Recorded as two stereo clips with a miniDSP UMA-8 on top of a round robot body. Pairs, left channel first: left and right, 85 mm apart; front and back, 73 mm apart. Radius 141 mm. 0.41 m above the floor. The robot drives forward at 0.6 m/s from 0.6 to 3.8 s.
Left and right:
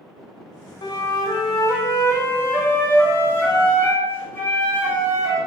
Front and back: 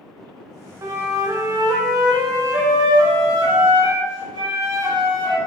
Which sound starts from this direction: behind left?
A flute, at 0.8 s.